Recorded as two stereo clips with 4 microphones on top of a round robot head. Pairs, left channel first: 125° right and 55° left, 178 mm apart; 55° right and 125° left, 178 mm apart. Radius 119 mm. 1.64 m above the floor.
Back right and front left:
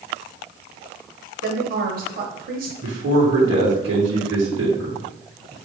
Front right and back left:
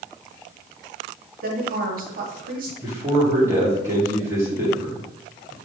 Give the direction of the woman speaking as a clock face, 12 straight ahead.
9 o'clock.